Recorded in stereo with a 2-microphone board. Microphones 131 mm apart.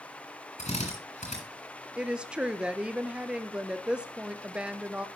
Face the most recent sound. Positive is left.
turn(degrees=-10)  # may be behind; listen again after turning